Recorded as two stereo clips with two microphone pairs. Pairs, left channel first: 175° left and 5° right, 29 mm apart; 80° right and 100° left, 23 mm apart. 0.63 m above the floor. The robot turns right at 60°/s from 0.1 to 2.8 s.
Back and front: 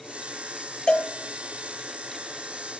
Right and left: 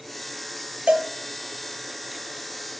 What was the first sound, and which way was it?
A cowbell, 130° left.